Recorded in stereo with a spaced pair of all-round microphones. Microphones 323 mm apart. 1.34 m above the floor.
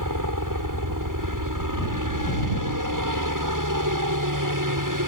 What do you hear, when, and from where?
0.0 s a helicopter: 75° right (ahead or behind)